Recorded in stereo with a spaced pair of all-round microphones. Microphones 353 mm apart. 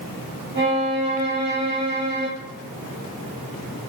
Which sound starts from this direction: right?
A violin, at 0.6 s.